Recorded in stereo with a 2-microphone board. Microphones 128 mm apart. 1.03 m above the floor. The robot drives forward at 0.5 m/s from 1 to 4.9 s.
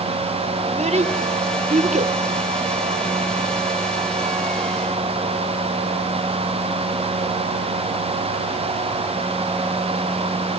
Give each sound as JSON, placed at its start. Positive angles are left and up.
{"t": 0.7, "sound": "a child speaking", "side_deg": -60, "distance_m": 1.5}